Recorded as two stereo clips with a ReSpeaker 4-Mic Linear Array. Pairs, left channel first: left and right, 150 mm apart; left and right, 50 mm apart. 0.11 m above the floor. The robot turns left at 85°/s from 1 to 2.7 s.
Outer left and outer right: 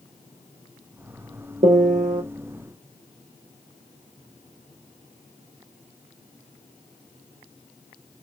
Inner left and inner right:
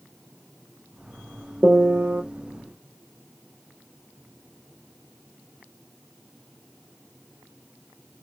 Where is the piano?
70° right, 1.1 m; by 2.2 s 120° right, 1.1 m.